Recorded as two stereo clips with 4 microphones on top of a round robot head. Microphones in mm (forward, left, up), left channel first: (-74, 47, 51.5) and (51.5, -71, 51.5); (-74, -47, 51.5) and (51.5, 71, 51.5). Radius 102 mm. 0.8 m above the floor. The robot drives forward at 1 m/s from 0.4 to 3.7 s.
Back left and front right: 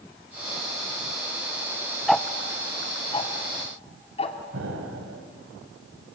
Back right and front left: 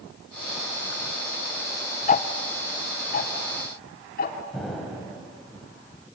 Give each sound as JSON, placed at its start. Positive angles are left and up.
{"t": 2.1, "sound": "ticking", "azimuth_deg": -130, "distance_m": 0.8}
{"t": 4.5, "sound": "an explosion", "azimuth_deg": -45, "distance_m": 3.0}